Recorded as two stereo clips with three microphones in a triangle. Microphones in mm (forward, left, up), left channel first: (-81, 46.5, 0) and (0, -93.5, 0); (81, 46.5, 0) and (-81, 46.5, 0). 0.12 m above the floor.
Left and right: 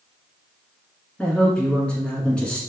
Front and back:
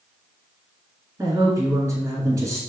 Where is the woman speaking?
170° right, 1.2 m.